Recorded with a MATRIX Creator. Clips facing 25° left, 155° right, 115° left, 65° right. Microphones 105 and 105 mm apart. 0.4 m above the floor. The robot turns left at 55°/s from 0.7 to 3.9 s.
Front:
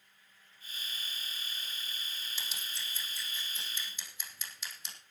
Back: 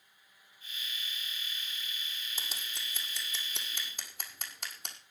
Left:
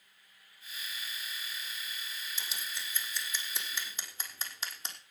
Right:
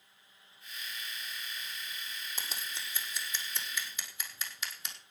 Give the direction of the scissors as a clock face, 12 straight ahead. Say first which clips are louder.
Back 1 dB, right 1 dB; 4 o'clock.